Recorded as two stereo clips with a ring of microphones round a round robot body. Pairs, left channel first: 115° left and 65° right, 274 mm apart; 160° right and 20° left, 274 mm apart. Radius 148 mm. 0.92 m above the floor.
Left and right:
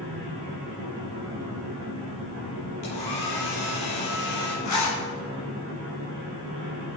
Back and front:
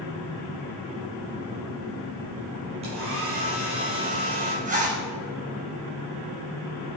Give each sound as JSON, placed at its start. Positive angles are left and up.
{"t": 2.8, "sound": "a hair dryer", "azimuth_deg": 90, "distance_m": 8.0}
{"t": 4.7, "sound": "a zipper", "azimuth_deg": 85, "distance_m": 4.0}